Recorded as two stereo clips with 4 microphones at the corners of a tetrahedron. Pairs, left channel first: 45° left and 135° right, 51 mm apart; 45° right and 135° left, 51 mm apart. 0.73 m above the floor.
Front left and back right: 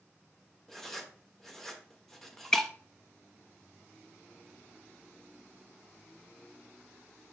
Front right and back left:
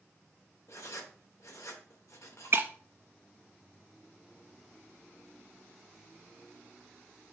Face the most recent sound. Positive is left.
turn(degrees=120)